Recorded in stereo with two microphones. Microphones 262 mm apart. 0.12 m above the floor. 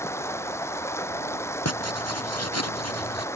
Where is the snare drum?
I don't hear a snare drum.